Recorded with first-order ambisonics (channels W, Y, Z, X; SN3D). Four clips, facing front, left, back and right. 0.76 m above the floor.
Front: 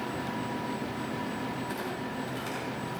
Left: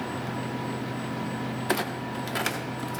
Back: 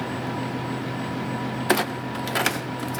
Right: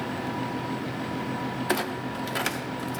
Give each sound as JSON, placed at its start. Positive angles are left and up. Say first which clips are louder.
{"t": 1.7, "sound": "a clunk", "louder": "even, back 11 dB", "azimuth_deg": 180, "distance_m": 0.7}